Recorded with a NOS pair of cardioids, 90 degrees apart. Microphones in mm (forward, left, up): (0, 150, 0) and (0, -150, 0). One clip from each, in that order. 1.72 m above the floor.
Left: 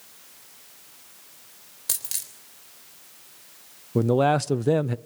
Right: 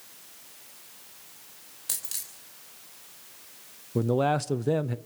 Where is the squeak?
I don't hear a squeak.